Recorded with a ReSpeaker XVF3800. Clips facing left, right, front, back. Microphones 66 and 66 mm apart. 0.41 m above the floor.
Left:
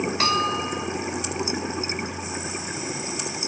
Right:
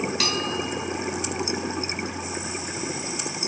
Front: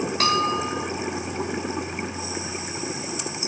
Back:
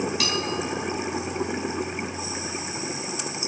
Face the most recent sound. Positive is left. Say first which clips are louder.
# left 4 dB, front 5 dB
turn(degrees=35)